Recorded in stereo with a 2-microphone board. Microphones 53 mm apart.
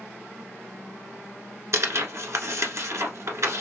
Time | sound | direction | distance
1.7 | tearing paper | 65° right (ahead or behind) | 1.0 m